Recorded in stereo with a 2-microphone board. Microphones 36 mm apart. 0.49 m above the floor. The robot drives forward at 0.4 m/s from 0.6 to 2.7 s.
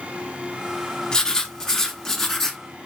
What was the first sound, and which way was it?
Writing, 20° left (ahead or behind).